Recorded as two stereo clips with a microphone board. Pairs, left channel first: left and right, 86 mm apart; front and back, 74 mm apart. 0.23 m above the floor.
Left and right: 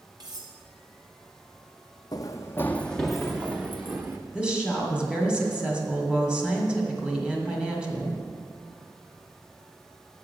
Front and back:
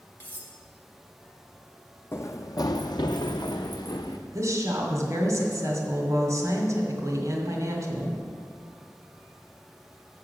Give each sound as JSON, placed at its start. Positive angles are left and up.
{"t": 0.2, "sound": "cutlery clinking", "azimuth_deg": -65, "distance_m": 1.8}
{"t": 2.1, "sound": "running footsteps", "azimuth_deg": 50, "distance_m": 0.7}
{"t": 4.3, "sound": "a woman speaking", "azimuth_deg": -165, "distance_m": 2.0}